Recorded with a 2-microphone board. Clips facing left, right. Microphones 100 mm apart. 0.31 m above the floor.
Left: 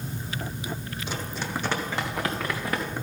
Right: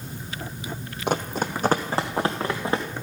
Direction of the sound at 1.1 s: 65° right (ahead or behind).